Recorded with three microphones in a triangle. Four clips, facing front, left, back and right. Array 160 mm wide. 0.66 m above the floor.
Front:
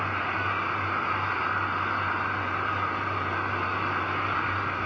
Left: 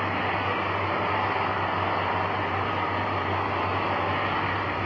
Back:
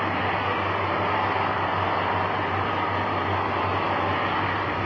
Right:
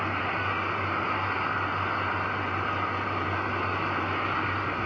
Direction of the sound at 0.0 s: 150° left.